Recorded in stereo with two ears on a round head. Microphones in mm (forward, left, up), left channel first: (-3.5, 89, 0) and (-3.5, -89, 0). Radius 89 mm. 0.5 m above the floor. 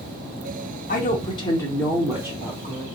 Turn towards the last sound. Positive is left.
turn(degrees=-30)  # may be behind; listen again after turning